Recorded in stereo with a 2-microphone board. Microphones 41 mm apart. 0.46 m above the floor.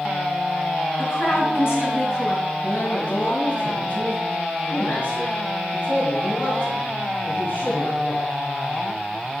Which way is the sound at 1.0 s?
75° left (ahead or behind).